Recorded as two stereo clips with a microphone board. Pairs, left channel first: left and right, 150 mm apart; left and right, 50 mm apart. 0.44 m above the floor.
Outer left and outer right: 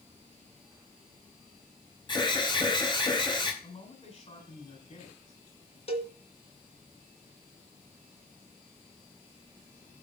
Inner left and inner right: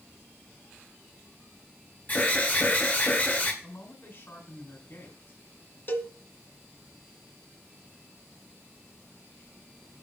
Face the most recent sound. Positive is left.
turn(degrees=40)  # may be behind; listen again after turning